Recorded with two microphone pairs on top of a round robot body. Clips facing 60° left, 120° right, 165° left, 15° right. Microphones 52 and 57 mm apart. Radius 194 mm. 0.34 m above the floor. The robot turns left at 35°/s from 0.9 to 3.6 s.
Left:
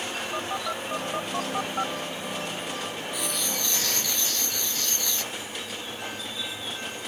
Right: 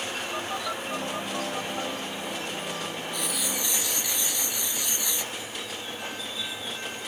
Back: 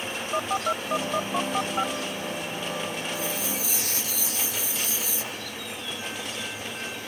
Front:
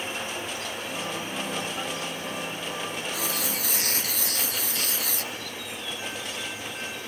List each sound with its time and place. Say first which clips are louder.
0.3 s a phone buzzing: left 2 dB, back 7 dB; 145° left; by 4.1 s 50° left
3.1 s writing: left 1 dB, even; 30° right; by 5.3 s 45° right